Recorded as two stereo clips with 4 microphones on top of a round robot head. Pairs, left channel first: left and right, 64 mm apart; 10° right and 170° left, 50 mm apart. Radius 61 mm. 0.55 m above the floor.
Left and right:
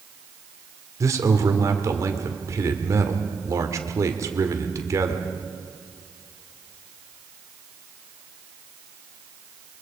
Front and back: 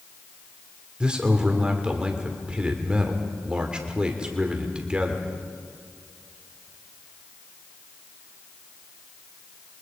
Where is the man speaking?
115° right, 2 m.